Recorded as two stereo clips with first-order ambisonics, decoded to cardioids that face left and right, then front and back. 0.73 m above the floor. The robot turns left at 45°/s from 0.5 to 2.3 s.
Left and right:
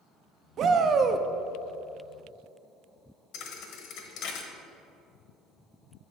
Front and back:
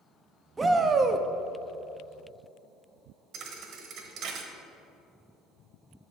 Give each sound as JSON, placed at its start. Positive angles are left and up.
{"t": 0.6, "sound": "a shout", "azimuth_deg": -110, "distance_m": 0.5}
{"t": 3.3, "sound": "a thud", "azimuth_deg": 130, "distance_m": 1.0}